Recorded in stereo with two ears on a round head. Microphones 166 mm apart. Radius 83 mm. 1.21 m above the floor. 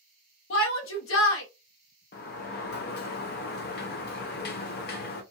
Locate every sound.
0.5 s a shout: 80° left, 0.9 m
2.1 s a sliding door: 55° left (ahead or behind), 0.5 m